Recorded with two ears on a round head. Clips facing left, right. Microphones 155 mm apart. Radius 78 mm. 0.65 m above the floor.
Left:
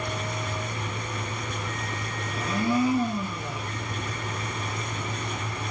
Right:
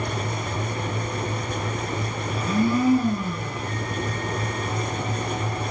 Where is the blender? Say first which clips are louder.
Right 3 dB; 40° right (ahead or behind), 7 m.